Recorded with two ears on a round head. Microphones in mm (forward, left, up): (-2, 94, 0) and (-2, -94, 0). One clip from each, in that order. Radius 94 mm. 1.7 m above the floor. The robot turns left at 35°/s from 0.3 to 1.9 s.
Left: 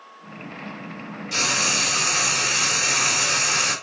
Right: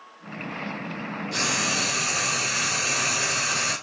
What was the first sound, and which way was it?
Frying, 50° left (ahead or behind).